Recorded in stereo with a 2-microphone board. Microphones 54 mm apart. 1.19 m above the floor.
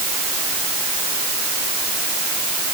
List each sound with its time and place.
Only background noise.